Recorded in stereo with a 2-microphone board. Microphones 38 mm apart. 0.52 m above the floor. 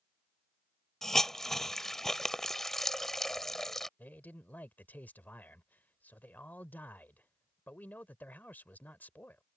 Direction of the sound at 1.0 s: 10° left (ahead or behind).